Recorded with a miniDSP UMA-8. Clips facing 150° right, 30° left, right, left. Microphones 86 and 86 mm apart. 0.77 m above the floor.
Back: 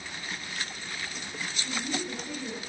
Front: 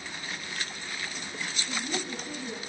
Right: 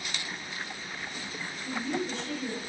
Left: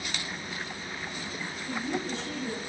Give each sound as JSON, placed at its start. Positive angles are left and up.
{"t": 1.6, "sound": "a woman speaking", "azimuth_deg": 135, "distance_m": 1.0}